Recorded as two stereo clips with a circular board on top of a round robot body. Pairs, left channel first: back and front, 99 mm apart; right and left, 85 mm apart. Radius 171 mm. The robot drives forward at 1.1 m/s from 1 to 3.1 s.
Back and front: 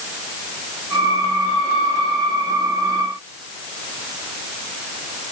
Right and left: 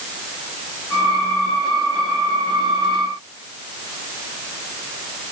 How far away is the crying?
No crying in this recording.